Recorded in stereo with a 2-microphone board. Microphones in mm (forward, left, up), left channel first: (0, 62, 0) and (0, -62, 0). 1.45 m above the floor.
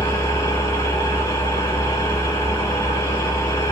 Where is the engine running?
30° left (ahead or behind), 0.8 m.